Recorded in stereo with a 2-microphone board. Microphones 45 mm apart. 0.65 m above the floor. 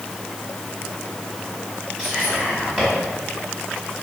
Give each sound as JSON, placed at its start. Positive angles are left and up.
{"t": 2.0, "sound": "whispering", "side_deg": 5, "distance_m": 1.6}